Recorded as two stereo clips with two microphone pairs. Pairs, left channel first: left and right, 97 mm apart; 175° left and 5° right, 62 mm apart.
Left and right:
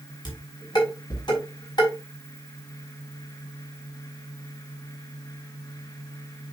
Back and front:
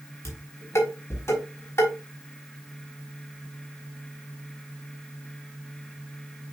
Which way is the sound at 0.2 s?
135° left.